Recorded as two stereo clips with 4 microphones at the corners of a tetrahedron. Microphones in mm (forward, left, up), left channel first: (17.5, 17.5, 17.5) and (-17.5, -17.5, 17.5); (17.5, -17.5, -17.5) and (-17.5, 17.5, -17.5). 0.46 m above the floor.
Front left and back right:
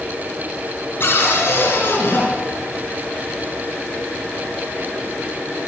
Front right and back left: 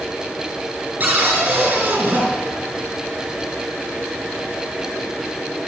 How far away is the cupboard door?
About 7 m.